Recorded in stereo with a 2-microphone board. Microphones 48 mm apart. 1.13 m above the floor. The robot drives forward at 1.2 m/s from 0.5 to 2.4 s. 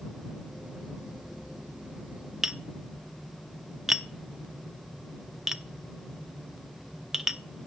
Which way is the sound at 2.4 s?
5° right (ahead or behind).